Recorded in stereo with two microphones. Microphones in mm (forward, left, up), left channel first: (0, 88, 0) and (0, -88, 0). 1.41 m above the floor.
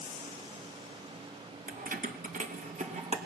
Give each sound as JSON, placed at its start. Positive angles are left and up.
{"t": 1.7, "sound": "keys jangling", "side_deg": -50, "distance_m": 0.7}